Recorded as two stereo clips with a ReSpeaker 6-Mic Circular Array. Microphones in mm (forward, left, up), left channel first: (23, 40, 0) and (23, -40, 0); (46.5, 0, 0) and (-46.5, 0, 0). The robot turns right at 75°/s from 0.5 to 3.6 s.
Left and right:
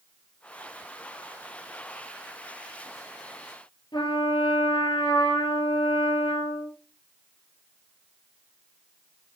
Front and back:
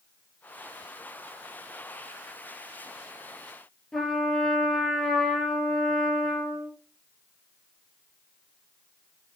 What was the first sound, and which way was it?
A trumpet, 85° left.